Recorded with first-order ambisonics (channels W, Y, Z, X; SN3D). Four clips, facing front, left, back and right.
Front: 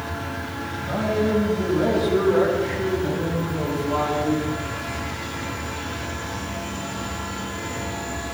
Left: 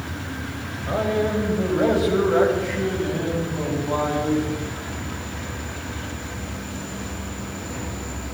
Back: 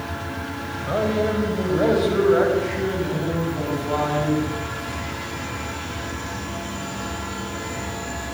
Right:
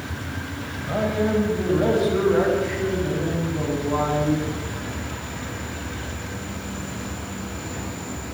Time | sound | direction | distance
0.9 | a man speaking | 150° left | 9 m